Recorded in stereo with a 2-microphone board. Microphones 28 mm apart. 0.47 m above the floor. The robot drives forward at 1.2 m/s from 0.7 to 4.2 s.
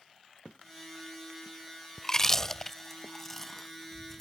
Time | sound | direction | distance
2.0 | chewing | 20° left (ahead or behind) | ?